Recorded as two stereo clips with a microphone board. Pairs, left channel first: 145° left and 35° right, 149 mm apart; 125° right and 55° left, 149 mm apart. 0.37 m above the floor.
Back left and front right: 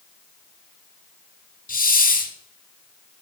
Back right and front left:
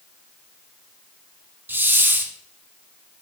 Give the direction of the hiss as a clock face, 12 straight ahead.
8 o'clock.